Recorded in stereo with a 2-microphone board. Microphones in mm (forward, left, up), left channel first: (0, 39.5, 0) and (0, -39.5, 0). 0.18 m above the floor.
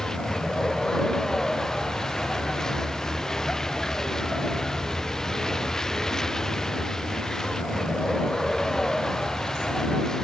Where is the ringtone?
I don't hear a ringtone.